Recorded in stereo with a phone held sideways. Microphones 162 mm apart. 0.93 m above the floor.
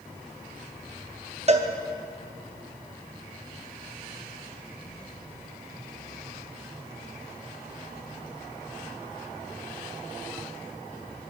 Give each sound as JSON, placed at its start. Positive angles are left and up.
{"t": 1.5, "sound": "a cowbell", "side_deg": -45, "distance_m": 0.7}